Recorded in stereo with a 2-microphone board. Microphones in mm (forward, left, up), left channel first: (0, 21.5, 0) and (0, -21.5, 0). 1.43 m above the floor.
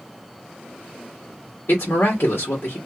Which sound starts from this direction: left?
A woman speaking, at 1.7 s.